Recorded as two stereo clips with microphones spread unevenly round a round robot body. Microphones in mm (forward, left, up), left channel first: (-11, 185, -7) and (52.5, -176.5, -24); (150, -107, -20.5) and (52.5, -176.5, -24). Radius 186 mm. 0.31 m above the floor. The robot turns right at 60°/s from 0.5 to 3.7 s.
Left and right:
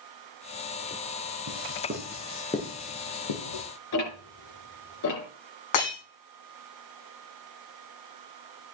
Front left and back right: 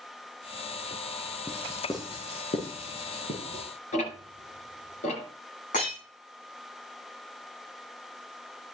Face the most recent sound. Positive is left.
turn(degrees=85)